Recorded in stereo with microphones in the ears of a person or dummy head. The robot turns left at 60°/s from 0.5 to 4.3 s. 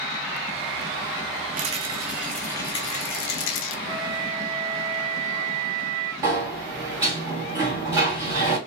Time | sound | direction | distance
1.6 | a rattle | 140° right | 0.5 m
3.9 | a flute | 30° right (ahead or behind) | 2 m
6.2 | a sliding door | 25° right (ahead or behind) | 1.6 m